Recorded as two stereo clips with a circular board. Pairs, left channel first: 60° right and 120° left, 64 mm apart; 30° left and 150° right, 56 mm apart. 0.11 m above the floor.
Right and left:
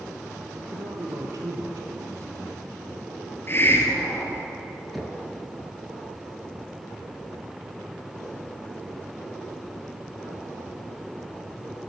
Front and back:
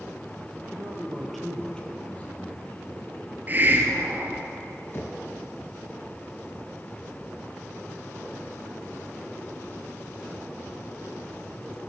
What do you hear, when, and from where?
0.6 s a man speaking: 155° left, 2.0 m; by 3.2 s 80° left, 4 m
3.5 s a hiss: 105° right, 1.3 m
4.9 s knocking: 30° left, 1.1 m